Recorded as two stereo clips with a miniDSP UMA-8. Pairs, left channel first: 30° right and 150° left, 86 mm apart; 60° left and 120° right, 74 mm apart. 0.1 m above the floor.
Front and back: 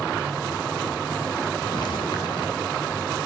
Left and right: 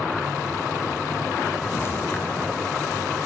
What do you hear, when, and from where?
1.6 s footsteps: straight ahead, 4 m